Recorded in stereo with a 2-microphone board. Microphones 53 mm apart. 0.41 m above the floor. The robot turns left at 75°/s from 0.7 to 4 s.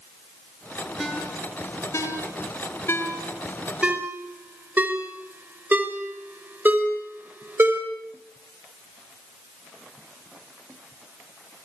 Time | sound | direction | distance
1.0 | a ringtone | 5° right (ahead or behind) | 4 m